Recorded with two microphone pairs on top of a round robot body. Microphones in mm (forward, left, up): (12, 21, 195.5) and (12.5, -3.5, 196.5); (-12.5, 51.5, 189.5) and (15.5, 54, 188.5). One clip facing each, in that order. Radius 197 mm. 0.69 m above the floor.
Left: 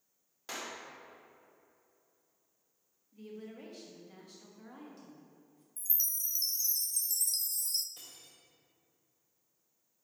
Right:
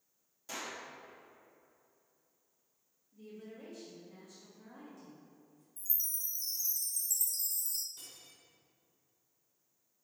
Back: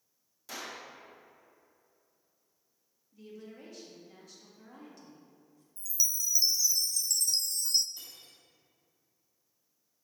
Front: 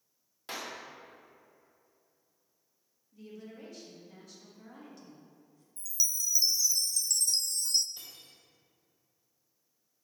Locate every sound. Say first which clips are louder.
0.5 s a clap: left 1 dB, front 2 dB; 45° left, 1.7 m
3.1 s a woman speaking: left 3 dB, front 1 dB; 90° left, 1.6 m
5.8 s a chime: left 4 dB, even; 95° left, 0.6 m
8.0 s cutlery clinking: even, even; 65° left, 2.5 m